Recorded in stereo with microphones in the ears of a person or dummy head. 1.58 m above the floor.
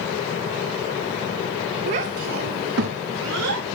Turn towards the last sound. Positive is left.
turn(degrees=-65)  # may be behind; listen again after turning